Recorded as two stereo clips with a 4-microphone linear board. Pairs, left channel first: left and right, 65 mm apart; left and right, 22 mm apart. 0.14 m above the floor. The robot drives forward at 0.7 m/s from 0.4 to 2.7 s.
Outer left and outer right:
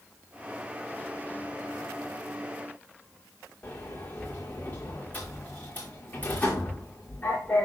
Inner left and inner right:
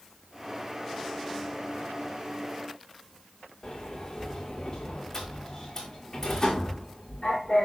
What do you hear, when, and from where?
3.6 s a sliding door: 25° left (ahead or behind), 4.5 m